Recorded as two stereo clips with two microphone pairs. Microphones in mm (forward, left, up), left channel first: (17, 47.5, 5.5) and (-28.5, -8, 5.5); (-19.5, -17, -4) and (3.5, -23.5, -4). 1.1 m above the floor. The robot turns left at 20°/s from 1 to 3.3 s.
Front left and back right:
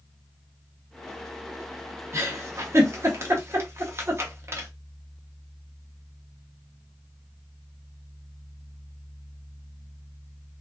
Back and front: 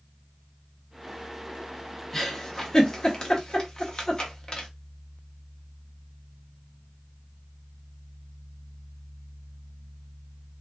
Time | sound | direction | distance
2.1 | a giggle | 135° right | 0.7 m